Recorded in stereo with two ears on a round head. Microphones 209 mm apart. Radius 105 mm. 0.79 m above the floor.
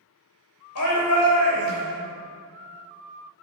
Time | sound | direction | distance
0.8 | a shout | 65° left (ahead or behind) | 3 m